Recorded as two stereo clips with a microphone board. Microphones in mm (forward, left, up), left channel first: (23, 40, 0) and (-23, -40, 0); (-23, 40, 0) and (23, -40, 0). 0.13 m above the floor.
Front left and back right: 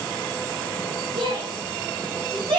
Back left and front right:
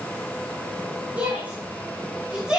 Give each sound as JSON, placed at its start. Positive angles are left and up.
{"t": 1.2, "sound": "a shout", "azimuth_deg": -130, "distance_m": 7.5}